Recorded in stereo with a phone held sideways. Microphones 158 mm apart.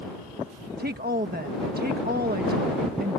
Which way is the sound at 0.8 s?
80° right.